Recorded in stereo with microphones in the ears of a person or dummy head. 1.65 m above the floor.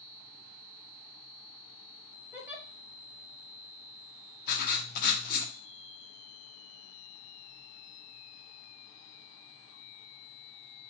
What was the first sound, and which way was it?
A giggle, 5° right (ahead or behind).